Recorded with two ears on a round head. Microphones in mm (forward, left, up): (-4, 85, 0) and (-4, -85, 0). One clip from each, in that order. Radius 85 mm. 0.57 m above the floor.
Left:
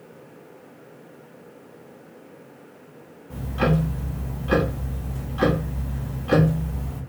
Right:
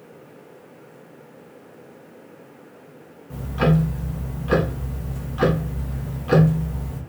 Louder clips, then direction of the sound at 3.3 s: Right 1 dB; 5° right (ahead or behind).